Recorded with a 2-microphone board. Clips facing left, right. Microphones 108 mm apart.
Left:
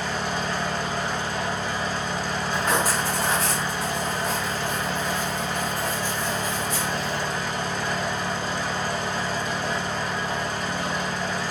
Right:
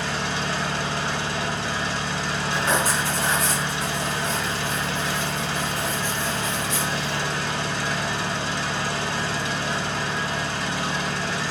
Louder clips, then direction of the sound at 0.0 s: Even; 85° right.